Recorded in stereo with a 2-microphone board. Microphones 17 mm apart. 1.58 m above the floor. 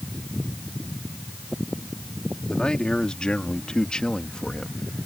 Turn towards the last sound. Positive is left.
turn(degrees=70)  # may be behind; listen again after turning